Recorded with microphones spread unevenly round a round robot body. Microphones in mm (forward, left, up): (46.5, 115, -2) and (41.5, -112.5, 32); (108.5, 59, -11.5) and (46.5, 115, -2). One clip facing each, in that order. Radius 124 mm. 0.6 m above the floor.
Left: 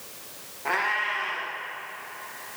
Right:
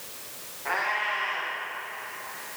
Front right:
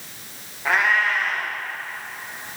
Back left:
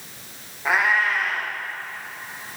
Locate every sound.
0.7 s a cat meowing: 55° left, 5 m